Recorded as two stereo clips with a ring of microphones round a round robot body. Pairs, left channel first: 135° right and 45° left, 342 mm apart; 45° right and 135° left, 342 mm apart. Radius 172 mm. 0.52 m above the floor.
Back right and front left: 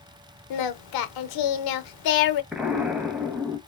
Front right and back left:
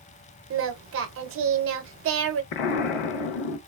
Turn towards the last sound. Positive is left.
turn(degrees=-45)